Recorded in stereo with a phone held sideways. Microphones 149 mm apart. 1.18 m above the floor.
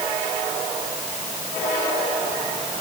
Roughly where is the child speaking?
No child speaking in this recording.